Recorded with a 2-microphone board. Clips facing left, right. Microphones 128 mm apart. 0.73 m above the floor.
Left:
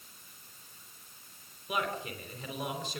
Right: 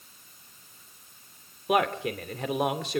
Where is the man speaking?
65° right (ahead or behind), 3 m.